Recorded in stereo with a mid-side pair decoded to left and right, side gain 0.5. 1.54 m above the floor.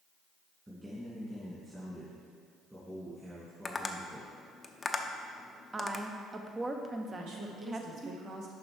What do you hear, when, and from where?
0.7 s a man speaking: 15° right, 2 m
3.6 s tapping: 25° left, 0.7 m
5.7 s a woman speaking: 25° right, 1.0 m
7.1 s a woman speaking: 70° right, 1.9 m